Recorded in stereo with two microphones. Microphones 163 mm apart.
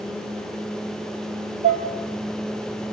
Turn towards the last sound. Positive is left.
turn(degrees=-55)  # may be behind; listen again after turning